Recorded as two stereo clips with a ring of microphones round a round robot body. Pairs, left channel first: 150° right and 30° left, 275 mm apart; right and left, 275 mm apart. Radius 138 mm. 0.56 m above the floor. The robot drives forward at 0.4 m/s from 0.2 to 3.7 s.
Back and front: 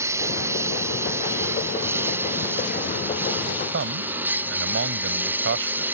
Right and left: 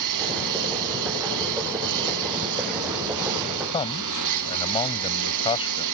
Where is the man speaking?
20° right.